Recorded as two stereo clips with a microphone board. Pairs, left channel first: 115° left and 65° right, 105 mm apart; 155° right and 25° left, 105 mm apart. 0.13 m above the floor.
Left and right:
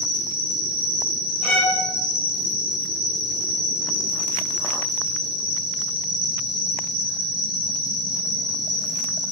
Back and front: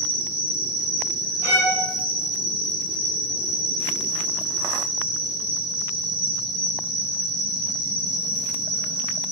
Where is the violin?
145° right, 1.2 m.